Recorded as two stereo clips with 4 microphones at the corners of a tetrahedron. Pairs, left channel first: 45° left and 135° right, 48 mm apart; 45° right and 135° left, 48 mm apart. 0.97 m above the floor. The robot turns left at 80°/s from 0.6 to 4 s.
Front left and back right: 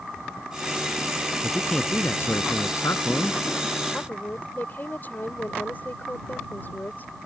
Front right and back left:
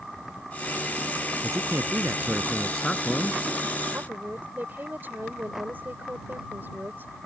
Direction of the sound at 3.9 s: 95° left.